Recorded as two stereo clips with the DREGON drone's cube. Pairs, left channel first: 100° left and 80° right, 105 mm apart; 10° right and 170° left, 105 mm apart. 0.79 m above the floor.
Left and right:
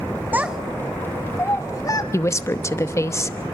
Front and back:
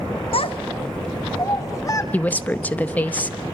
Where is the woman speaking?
55° left, 0.8 m.